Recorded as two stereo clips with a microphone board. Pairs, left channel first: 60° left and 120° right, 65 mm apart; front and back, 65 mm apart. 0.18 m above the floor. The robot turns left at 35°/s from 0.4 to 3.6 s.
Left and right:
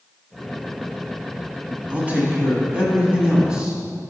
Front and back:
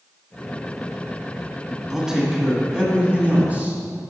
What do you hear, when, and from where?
1.9 s a man speaking: 110° right, 1.7 m; by 3.8 s 170° right, 1.7 m